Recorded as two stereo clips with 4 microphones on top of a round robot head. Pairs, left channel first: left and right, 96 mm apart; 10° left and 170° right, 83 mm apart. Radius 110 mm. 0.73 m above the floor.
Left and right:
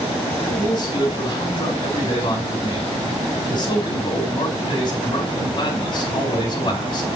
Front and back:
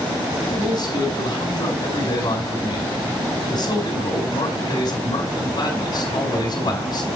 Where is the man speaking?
50° left, 3.5 m.